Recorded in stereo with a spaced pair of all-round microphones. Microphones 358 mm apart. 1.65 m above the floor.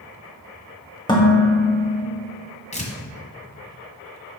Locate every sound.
1.1 s dishes clattering: 10° left (ahead or behind), 1.9 m
2.7 s tearing paper: 20° left (ahead or behind), 1.7 m